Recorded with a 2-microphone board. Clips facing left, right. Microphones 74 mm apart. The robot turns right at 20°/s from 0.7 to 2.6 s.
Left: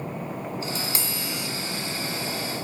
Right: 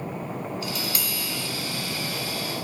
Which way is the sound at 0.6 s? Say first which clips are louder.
Even; 35° left (ahead or behind).